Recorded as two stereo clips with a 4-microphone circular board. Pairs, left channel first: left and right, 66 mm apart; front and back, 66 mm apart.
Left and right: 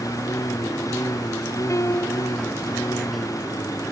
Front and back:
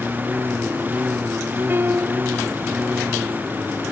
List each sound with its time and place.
0.0 s a lawn mower: 115° left
1.7 s a piano: 125° left